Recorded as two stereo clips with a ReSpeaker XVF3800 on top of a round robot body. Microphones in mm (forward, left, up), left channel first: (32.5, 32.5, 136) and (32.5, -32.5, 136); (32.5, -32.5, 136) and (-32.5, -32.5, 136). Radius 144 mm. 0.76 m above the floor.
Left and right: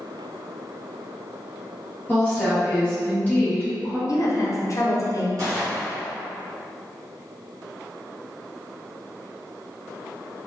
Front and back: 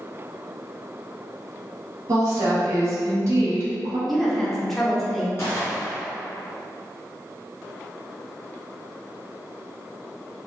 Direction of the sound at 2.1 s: 150° left.